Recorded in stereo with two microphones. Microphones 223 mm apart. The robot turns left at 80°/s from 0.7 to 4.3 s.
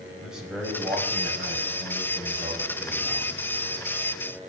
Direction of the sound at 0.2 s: 5° right.